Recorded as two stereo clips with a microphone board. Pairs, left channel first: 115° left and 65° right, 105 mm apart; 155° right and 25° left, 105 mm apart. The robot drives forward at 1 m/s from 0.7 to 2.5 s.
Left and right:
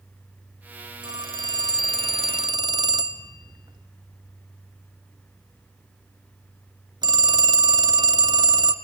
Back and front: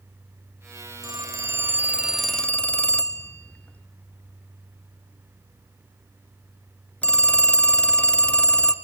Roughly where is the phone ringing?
Ahead right.